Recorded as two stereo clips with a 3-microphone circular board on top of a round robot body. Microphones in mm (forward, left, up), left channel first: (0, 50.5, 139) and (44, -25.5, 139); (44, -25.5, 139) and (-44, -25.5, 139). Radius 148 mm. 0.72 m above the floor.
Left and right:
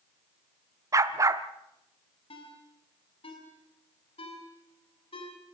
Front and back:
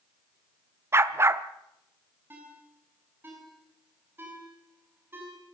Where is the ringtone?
115° left, 5.5 m.